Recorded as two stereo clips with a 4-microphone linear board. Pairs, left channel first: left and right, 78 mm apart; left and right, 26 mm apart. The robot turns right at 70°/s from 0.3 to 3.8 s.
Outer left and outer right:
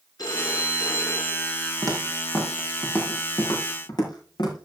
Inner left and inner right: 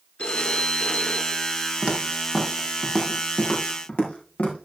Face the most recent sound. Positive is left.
turn(degrees=75)  # may be behind; listen again after turning